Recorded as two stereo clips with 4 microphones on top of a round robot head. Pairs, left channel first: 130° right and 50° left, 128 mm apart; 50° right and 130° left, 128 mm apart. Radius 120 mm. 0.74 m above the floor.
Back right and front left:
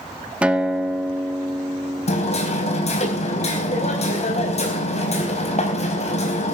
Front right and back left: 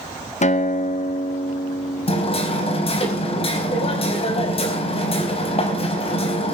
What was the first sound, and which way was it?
A guitar, 30° right.